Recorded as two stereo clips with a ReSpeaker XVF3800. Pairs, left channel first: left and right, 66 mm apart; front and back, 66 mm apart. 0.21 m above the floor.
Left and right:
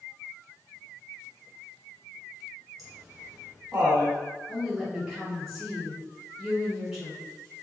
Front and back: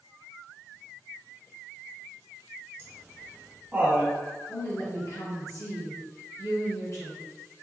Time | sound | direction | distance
2.8 | laughter | straight behind | 1.5 m
4.5 | a woman speaking | 5° right | 1.9 m